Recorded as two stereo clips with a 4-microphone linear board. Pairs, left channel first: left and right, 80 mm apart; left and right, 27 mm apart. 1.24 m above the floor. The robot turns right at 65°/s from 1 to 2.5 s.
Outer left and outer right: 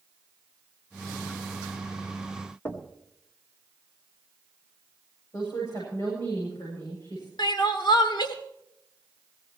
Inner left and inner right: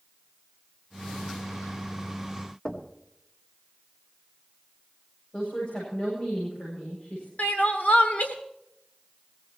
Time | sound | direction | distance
2.6 | knocking | 30° left (ahead or behind) | 1.6 m
5.3 | a woman speaking | 50° left (ahead or behind) | 7.5 m
7.4 | crying | 75° left (ahead or behind) | 1.8 m